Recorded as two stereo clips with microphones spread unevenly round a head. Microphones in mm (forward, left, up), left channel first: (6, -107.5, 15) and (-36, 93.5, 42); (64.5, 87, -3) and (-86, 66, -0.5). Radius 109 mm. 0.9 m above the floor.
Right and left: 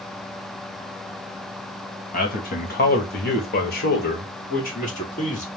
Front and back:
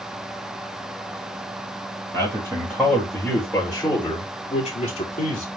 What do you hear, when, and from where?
2.1 s a man speaking: 105° right, 1.5 m; by 5.5 s 30° right, 2.0 m